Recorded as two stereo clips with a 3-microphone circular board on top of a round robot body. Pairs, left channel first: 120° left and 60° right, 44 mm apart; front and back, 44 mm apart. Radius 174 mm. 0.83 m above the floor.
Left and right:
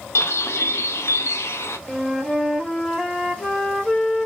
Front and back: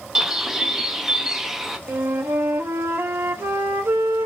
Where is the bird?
100° left, 0.7 m.